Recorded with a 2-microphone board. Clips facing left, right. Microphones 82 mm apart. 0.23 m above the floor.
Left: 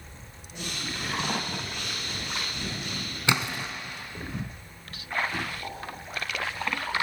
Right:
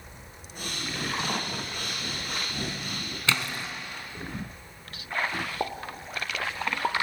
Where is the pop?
85° right, 1.8 m.